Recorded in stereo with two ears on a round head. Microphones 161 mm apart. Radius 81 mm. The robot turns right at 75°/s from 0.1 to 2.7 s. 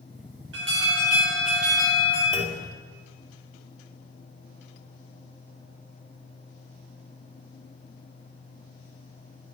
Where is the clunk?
30° right (ahead or behind), 2 m; by 2.6 s 5° right (ahead or behind), 2 m.